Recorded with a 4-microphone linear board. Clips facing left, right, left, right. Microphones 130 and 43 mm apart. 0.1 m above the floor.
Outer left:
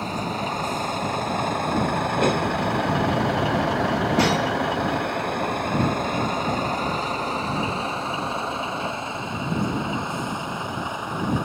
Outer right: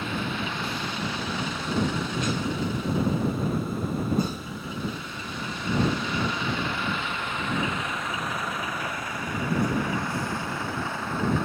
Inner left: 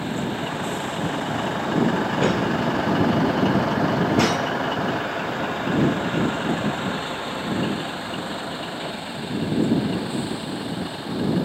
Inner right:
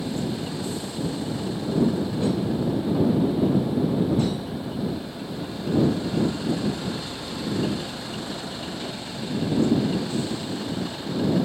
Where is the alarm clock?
No alarm clock in this recording.